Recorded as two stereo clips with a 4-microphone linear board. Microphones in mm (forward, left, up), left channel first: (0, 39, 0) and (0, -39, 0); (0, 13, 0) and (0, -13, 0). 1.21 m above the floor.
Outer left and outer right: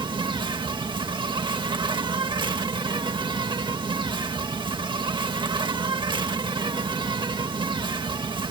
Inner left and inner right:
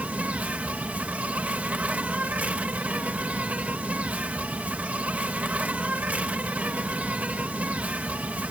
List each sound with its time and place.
0.0 s an insect: 75° right (ahead or behind)